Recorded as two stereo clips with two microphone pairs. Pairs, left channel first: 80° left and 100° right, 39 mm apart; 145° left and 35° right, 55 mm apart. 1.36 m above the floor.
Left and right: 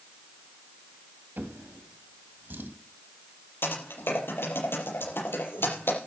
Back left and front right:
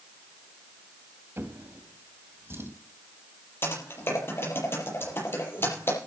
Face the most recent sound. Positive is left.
turn(degrees=100)